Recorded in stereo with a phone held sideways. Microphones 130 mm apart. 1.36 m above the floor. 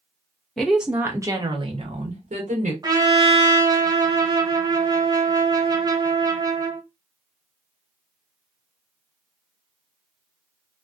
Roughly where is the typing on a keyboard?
No typing on a keyboard in this recording.